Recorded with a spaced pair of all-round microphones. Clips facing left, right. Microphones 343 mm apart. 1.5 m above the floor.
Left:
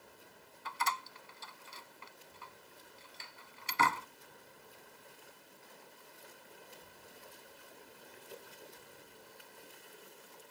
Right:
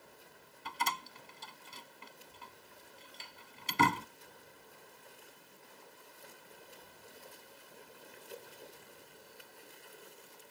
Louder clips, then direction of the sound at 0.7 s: Even; 40° right (ahead or behind).